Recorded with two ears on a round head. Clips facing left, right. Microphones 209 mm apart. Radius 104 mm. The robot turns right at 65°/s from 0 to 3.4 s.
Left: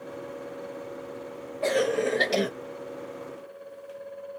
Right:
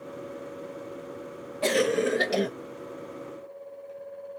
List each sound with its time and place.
1.6 s a cough: 50° right, 0.8 m; by 2.5 s 10° left, 0.8 m